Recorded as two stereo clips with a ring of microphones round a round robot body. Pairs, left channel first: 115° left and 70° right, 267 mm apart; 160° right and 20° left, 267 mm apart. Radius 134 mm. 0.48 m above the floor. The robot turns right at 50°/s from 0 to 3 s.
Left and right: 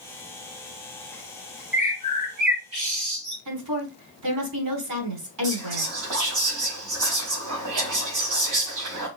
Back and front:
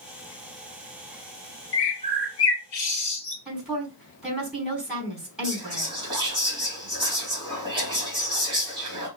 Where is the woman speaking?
65° right, 4.5 m.